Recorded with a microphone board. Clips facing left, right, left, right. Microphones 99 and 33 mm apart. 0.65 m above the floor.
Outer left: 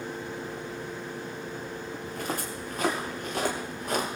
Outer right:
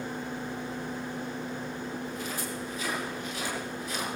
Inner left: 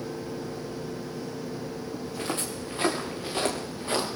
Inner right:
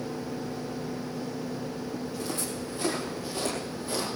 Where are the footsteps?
55° left (ahead or behind), 4.5 m.